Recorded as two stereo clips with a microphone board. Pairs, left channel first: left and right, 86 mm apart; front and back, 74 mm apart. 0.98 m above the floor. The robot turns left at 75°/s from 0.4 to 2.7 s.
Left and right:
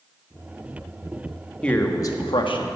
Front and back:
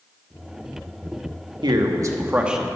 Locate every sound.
1.6 s a man speaking: 170° left, 1.1 m; by 2.6 s 90° left, 1.1 m